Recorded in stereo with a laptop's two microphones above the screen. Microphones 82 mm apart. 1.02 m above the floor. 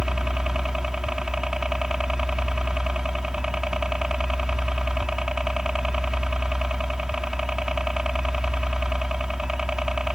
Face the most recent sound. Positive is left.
turn(degrees=-5)  # may be behind; listen again after turning